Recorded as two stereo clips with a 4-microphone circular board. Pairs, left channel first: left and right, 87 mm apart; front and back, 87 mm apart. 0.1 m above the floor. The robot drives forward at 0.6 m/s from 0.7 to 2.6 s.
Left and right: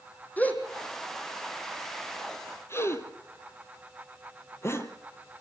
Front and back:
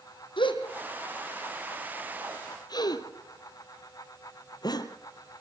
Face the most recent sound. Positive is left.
turn(degrees=35)